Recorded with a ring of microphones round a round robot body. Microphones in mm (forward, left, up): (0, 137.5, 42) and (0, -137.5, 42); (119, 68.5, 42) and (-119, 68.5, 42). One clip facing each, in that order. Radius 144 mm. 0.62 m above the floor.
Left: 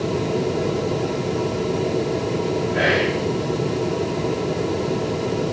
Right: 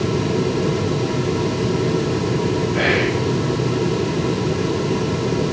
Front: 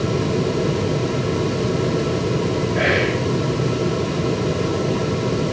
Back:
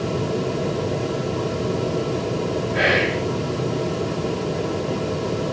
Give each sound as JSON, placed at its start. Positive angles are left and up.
{"t": 2.7, "sound": "whispering", "azimuth_deg": -170, "distance_m": 1.7}